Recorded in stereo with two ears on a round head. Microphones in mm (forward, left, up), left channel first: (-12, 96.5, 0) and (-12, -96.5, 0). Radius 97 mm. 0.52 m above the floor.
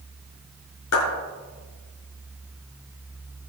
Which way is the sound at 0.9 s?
85° left.